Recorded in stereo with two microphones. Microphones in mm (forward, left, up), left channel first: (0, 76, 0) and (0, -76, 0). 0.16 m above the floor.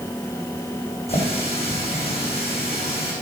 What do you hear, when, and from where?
1.1 s a running tap: 40° left (ahead or behind), 8 m